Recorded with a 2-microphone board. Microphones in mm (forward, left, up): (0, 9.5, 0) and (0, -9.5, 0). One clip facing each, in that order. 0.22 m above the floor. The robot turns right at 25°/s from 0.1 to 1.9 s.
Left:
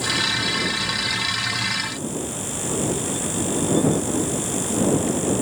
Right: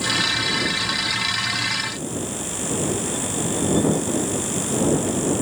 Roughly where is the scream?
I don't hear a scream.